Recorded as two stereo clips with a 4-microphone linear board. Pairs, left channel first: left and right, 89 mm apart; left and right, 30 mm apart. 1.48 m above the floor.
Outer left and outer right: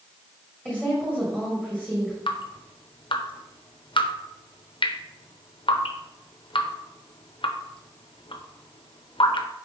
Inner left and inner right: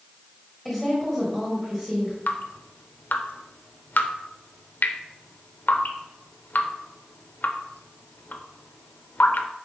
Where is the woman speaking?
10° right (ahead or behind), 2 m.